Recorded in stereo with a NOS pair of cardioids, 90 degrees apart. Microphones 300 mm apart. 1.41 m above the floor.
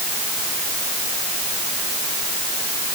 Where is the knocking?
I don't hear knocking.